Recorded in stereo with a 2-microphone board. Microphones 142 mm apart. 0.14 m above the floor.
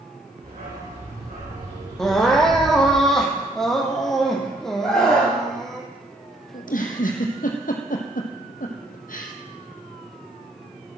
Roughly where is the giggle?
Left.